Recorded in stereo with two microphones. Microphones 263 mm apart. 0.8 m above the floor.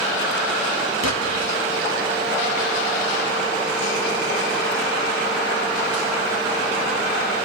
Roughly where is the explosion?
Right.